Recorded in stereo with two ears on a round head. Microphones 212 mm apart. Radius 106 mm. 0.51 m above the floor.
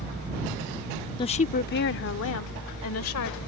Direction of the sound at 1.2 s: 20° left (ahead or behind).